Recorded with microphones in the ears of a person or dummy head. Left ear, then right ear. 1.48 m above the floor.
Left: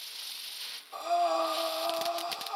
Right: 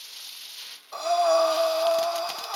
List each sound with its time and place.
0.9 s breathing: 75° right (ahead or behind), 0.8 m